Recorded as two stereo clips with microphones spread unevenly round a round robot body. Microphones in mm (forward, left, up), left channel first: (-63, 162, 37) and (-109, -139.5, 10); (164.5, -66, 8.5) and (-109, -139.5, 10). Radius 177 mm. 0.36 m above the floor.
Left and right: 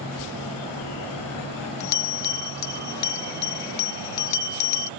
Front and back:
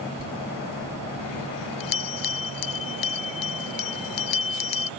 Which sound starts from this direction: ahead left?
A bell, at 0.2 s.